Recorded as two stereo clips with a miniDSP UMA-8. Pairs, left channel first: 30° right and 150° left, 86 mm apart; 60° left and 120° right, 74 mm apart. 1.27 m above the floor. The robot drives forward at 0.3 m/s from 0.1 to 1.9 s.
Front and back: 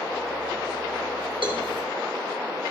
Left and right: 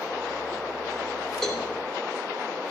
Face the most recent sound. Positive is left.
turn(degrees=150)